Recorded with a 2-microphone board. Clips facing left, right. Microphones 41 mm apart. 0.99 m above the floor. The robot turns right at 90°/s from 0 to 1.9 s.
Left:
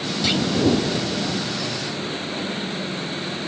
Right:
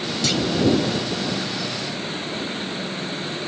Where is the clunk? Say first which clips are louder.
Left 1 dB; 20° left (ahead or behind); by 0.4 s 35° left (ahead or behind).